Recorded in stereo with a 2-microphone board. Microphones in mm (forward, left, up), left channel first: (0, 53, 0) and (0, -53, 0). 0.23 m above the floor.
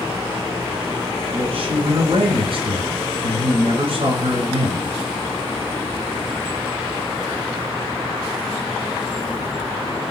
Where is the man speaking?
60° right (ahead or behind), 3.5 m.